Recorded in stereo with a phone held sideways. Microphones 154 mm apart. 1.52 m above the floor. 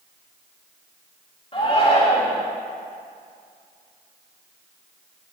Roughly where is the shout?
Left.